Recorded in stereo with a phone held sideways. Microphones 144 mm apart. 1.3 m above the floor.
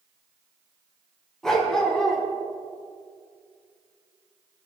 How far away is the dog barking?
About 3.5 m.